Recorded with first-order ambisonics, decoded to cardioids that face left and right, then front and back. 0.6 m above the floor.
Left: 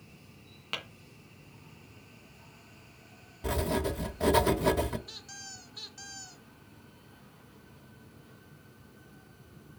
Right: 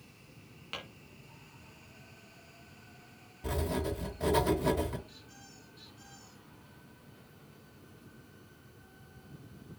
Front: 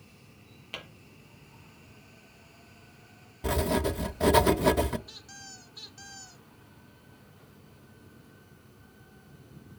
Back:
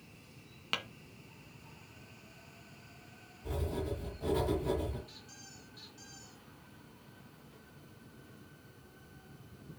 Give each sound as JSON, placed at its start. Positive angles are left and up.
{"t": 0.7, "sound": "tapping", "azimuth_deg": 160, "distance_m": 2.0}
{"t": 3.4, "sound": "writing", "azimuth_deg": 15, "distance_m": 0.7}
{"t": 5.1, "sound": "a squeak", "azimuth_deg": 65, "distance_m": 1.0}